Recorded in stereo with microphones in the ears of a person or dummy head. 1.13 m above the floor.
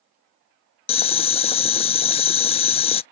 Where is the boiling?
35° left (ahead or behind).